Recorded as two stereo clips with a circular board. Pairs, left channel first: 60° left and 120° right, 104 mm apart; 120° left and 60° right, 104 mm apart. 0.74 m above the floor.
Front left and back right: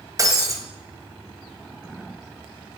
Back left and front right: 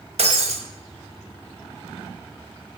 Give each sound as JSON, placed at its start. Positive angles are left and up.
{"t": 0.2, "sound": "breaking glass", "azimuth_deg": -65, "distance_m": 1.9}